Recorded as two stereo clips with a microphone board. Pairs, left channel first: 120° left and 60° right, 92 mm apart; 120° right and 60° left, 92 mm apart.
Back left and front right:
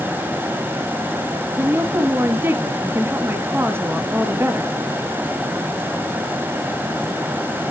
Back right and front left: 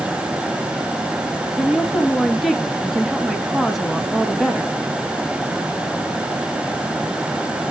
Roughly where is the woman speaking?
Ahead right.